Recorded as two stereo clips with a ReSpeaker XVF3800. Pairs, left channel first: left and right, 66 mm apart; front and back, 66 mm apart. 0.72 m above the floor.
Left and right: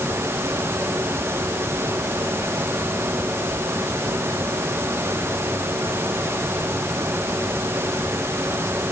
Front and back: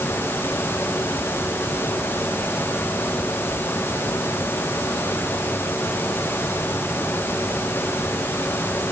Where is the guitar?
I don't hear a guitar.